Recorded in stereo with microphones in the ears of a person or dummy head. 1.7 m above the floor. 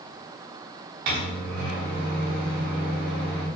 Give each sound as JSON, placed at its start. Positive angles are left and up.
{"t": 1.1, "sound": "a microwave", "side_deg": -60, "distance_m": 1.0}